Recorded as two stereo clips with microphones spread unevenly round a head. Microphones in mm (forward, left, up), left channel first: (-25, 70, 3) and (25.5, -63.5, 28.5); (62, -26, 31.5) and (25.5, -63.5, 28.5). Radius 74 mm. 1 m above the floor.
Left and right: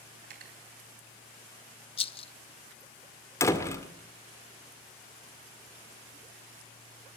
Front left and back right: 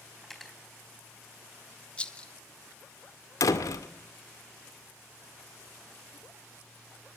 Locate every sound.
0.2 s cutlery clinking: 40° right, 4 m
2.0 s a rattle: 115° left, 0.8 m
3.4 s a door slam: 40° left, 2.0 m